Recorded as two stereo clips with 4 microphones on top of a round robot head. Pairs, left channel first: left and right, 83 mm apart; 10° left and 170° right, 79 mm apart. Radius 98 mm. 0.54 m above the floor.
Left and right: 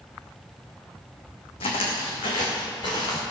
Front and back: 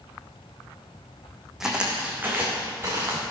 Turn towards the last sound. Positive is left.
turn(degrees=135)